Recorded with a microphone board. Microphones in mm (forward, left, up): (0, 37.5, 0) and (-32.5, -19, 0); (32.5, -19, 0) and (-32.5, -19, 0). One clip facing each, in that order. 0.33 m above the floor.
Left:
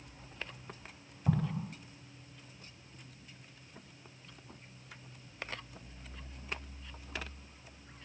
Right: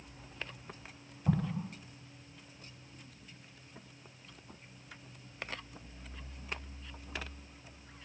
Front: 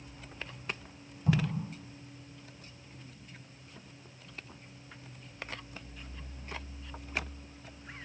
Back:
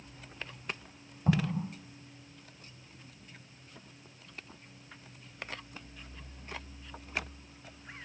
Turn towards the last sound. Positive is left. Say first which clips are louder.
# even, back 1 dB
turn(degrees=140)